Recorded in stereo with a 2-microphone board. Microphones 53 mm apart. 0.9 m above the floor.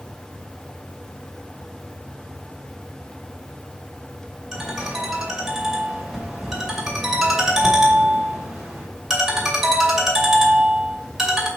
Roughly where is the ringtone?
Centre.